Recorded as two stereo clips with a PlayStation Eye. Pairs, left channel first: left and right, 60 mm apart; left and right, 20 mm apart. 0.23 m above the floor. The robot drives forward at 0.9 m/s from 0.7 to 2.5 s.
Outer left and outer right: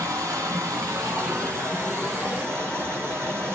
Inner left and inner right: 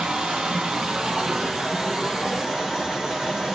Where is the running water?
70° right (ahead or behind), 2.5 m; by 3.5 s 45° right (ahead or behind), 3.5 m.